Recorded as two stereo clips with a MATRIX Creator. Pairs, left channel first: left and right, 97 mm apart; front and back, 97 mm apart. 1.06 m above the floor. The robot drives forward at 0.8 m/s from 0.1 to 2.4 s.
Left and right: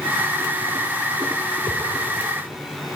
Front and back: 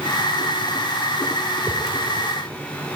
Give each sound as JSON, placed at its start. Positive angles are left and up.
{"t": 1.7, "sound": "a whoosh", "azimuth_deg": -105, "distance_m": 3.0}